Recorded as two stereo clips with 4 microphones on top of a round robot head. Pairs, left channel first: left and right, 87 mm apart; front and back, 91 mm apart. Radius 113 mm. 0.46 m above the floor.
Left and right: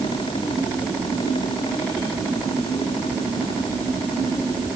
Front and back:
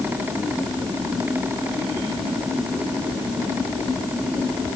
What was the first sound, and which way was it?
Only background noise.